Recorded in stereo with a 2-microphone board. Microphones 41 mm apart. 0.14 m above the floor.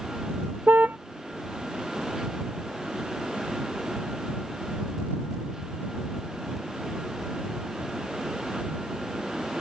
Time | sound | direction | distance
0.7 | a car horn | 50° right (ahead or behind) | ?